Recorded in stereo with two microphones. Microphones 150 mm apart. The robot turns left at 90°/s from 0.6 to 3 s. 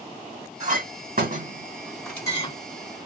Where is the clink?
50° right (ahead or behind), 1.5 m; by 2.5 s 45° left (ahead or behind), 1.5 m.